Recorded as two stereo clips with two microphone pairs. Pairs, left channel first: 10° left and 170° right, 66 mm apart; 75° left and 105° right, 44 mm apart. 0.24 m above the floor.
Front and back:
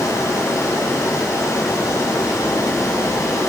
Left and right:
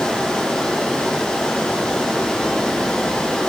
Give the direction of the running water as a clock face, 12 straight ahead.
12 o'clock.